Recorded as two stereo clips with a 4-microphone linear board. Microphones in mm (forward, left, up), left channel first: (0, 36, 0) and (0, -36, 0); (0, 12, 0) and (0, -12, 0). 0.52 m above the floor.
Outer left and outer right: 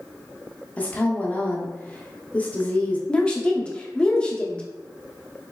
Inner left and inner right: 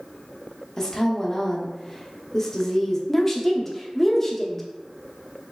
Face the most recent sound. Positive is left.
turn(degrees=15)  # may be behind; listen again after turning